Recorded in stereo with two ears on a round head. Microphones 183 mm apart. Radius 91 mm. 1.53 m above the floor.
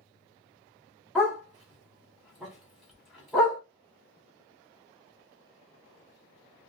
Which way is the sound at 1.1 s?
Centre (ahead or behind).